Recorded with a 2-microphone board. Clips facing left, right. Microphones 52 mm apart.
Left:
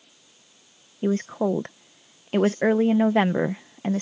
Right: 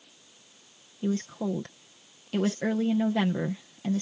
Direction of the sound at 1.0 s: 40° left (ahead or behind).